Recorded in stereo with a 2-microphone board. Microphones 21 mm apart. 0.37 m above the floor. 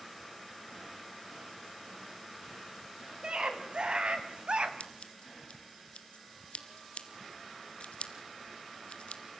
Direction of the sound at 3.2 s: 50° right (ahead or behind).